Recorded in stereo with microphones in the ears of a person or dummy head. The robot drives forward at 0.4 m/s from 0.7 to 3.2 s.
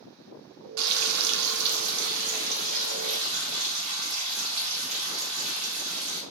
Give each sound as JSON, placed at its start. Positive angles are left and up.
{"t": 0.8, "sound": "frying", "side_deg": -75, "distance_m": 0.6}